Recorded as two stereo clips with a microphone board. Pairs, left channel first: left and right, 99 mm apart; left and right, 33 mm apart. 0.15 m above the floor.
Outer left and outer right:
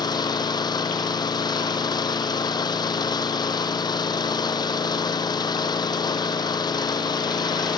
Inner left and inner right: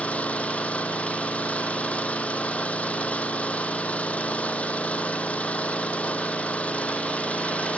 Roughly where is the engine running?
Left.